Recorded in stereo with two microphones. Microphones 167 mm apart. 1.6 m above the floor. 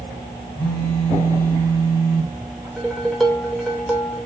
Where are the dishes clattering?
Centre (ahead or behind), 3.5 m.